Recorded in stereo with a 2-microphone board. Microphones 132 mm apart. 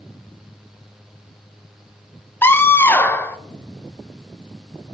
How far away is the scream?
About 0.7 m.